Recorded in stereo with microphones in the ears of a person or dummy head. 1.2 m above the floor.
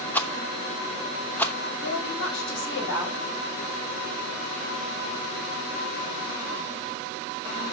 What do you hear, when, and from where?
0.1 s a rattle: 10° left (ahead or behind), 0.9 m
1.8 s a woman speaking: 70° left (ahead or behind), 5.5 m